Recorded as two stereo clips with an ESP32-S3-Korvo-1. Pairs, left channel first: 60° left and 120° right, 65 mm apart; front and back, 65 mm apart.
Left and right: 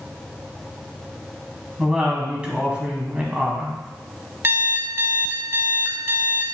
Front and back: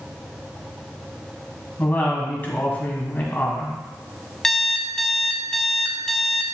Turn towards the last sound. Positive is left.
turn(degrees=-80)